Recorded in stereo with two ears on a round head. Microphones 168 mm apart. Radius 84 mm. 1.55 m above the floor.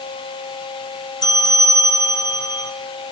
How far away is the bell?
About 1.7 m.